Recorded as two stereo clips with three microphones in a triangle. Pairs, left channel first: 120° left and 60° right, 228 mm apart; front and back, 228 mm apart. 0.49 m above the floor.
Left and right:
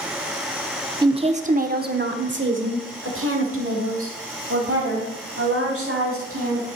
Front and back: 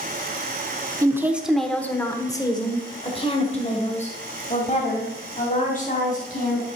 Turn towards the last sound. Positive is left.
turn(degrees=-50)